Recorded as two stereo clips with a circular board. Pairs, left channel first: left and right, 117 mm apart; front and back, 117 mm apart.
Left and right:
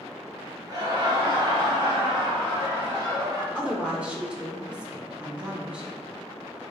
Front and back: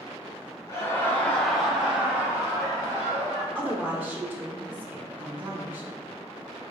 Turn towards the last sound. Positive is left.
turn(degrees=-150)